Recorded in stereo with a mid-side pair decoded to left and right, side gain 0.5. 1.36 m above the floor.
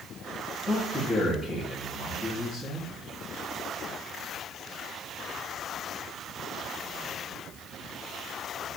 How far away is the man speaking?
About 3 m.